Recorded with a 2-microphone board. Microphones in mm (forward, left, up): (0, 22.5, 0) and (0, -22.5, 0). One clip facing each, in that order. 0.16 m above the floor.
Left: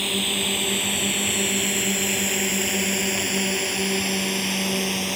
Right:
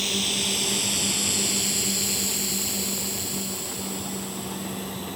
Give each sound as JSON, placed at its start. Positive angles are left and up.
{"t": 0.0, "sound": "a drone", "side_deg": 20}